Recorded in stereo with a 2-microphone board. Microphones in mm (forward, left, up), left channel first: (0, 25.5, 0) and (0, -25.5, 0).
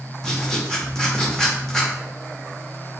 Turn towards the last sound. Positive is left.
turn(degrees=10)  # may be behind; listen again after turning